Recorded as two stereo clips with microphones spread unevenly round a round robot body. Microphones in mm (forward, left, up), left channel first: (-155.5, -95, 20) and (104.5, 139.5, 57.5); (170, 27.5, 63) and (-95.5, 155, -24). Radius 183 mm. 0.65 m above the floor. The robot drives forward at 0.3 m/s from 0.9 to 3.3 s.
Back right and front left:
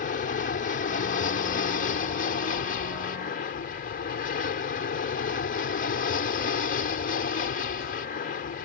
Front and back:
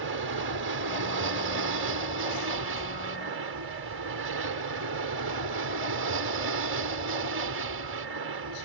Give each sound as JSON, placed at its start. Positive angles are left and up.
{"t": 0.0, "sound": "an aircraft", "azimuth_deg": 165}